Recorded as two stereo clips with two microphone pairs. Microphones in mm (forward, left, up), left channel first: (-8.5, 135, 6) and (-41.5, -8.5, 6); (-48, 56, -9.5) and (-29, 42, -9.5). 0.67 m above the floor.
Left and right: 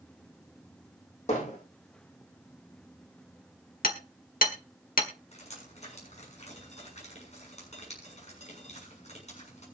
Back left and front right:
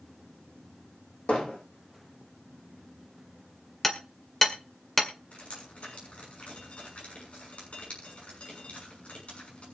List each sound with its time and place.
1.3 s hammering: 115° left, 9.5 m
3.8 s hammering: 70° left, 1.7 m
5.3 s dripping: 115° left, 6.5 m